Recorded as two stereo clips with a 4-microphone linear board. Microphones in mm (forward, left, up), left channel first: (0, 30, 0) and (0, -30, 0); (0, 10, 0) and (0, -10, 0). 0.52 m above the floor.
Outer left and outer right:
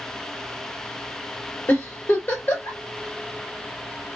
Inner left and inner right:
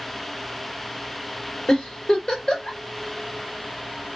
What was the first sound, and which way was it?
A giggle, 40° left (ahead or behind).